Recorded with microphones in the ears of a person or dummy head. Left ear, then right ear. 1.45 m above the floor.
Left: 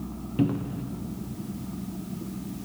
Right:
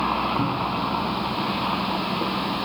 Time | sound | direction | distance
0.4 | a cupboard door | 25° left (ahead or behind) | 0.5 m